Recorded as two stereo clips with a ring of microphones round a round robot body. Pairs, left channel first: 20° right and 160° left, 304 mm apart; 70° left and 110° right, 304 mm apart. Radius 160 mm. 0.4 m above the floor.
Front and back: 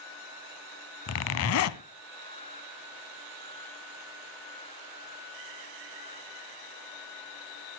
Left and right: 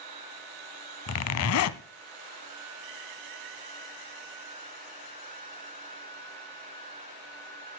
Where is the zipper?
25° left, 0.7 m.